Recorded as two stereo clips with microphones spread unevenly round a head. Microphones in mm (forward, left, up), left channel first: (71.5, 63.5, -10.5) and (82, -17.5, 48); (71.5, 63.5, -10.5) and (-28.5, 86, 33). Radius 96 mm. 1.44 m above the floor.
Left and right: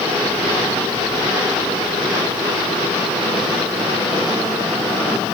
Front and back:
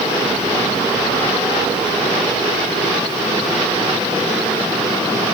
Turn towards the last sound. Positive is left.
No sound to turn to.